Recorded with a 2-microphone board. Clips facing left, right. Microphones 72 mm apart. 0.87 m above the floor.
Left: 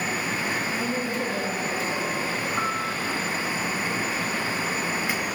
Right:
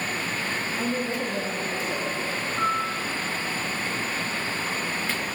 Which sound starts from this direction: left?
A piano, at 2.6 s.